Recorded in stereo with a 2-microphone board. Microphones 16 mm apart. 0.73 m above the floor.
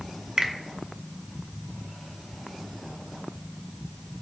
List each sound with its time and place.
0.4 s a finger snap: 40° right (ahead or behind), 0.5 m